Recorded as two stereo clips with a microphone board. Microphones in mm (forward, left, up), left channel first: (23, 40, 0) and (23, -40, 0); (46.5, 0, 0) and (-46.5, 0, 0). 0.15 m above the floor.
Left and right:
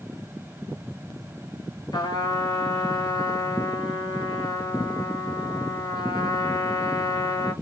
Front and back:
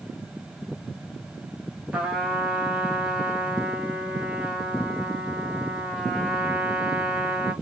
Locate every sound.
1.9 s a trumpet: 105° left, 1.2 m